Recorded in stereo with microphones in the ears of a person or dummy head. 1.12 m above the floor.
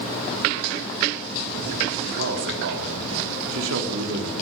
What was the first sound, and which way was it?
A man speaking, 70° right (ahead or behind).